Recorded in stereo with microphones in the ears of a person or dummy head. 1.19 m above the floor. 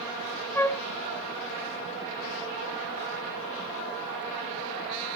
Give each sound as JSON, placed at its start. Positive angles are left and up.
{"t": 0.6, "sound": "a flute", "side_deg": 10, "distance_m": 0.5}